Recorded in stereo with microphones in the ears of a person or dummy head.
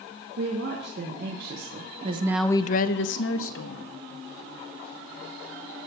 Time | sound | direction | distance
0.4 | a woman speaking | 65° right (ahead or behind) | 2 m